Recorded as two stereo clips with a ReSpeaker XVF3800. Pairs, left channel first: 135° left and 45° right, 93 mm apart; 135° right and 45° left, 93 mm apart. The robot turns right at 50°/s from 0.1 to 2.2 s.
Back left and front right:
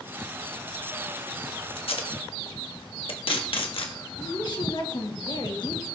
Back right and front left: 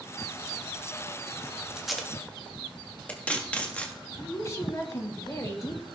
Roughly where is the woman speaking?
Behind.